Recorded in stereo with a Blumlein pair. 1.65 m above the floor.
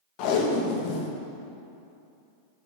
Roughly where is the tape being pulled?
Ahead left.